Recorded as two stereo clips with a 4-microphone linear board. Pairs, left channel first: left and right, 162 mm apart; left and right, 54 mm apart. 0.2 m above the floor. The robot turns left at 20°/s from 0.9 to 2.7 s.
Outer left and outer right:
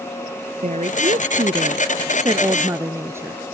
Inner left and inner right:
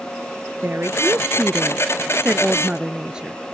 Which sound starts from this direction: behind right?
A woman speaking, at 0.6 s.